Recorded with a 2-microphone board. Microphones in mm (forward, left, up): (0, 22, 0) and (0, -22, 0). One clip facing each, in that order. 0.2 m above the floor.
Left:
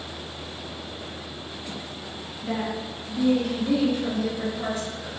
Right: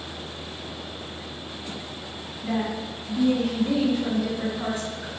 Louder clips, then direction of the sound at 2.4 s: Right 1 dB; 10° right (ahead or behind).